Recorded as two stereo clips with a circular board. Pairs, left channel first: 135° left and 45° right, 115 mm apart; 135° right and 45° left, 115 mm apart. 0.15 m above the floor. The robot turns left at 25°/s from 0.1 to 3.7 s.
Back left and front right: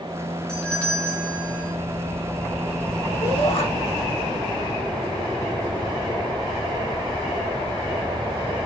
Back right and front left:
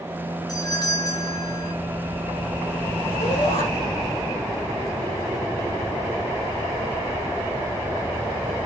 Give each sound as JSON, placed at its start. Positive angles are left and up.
{"t": 0.5, "sound": "a doorbell", "azimuth_deg": -145, "distance_m": 2.0}
{"t": 3.2, "sound": "a shout", "azimuth_deg": -170, "distance_m": 5.0}